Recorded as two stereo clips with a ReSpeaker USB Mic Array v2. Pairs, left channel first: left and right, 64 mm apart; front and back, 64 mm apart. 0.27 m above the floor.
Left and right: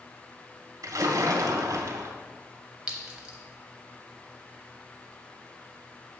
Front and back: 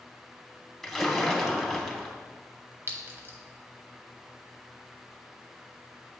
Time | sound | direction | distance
0.8 | a splash | 85° right | 0.8 m
2.9 | a clink | 155° right | 1.0 m